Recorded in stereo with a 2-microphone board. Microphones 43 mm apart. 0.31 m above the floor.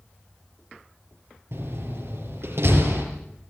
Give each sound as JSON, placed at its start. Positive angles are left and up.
{"t": 1.5, "sound": "a door slam", "side_deg": -75, "distance_m": 6.5}